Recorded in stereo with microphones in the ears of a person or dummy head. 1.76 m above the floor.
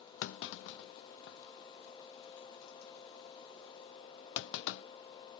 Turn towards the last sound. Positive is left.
turn(degrees=65)  # may be behind; listen again after turning